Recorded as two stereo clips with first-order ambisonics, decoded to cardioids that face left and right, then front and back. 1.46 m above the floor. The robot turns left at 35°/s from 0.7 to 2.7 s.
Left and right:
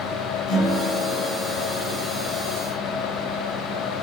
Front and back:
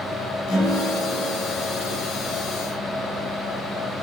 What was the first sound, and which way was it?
A guitar, 40° left.